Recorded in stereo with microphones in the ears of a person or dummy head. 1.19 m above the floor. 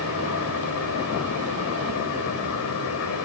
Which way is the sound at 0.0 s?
65° left (ahead or behind).